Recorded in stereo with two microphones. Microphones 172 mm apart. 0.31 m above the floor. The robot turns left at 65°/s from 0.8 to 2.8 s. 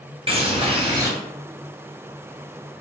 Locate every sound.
0.3 s a bird: 35° right (ahead or behind), 0.8 m; by 1.1 s 20° right (ahead or behind), 0.8 m